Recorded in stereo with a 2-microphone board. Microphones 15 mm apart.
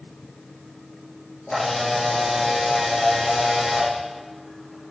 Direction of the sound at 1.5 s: 40° left (ahead or behind).